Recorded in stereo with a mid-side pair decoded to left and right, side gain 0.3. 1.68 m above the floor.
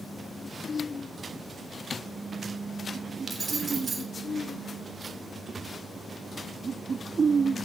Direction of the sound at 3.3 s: 50° right.